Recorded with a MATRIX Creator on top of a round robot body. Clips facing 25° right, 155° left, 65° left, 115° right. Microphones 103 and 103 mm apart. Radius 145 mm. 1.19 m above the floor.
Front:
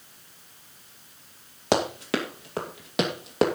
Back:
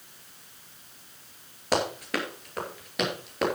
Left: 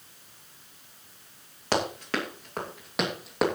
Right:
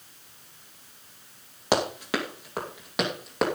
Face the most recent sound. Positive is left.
turn(degrees=-20)